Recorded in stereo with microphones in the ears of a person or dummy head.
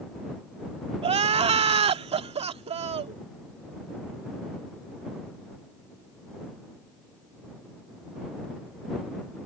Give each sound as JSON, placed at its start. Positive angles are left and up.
{"t": 1.0, "sound": "crying", "side_deg": -30}